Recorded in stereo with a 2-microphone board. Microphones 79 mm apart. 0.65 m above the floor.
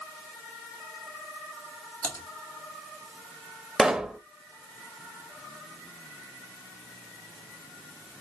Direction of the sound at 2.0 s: 25° left (ahead or behind).